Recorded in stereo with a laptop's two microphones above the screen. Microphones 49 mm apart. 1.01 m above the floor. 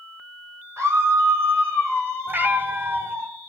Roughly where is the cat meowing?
Right.